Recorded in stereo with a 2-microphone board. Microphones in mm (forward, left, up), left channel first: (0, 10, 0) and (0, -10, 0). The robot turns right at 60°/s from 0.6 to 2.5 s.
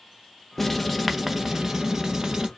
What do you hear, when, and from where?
0.6 s writing: 160° left, 0.9 m; by 2.5 s 85° right, 0.9 m